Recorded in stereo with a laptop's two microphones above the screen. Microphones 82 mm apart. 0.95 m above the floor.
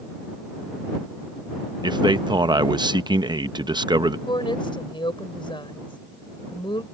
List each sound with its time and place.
1.8 s a man speaking: 60° right (ahead or behind)
4.3 s a woman speaking: 80° left